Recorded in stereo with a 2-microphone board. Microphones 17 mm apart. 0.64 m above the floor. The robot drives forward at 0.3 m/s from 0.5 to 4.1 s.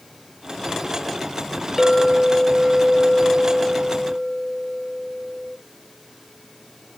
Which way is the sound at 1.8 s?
5° right (ahead or behind).